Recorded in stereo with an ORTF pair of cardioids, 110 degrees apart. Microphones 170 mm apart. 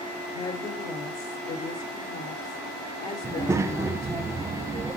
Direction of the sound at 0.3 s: 65° left.